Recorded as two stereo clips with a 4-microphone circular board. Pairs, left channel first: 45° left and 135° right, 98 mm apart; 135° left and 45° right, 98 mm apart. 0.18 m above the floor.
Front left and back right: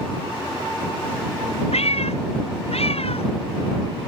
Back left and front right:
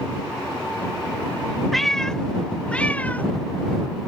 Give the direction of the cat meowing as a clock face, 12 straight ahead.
10 o'clock.